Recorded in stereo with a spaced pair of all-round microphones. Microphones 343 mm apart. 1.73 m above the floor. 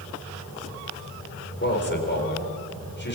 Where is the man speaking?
30° left (ahead or behind), 5 m.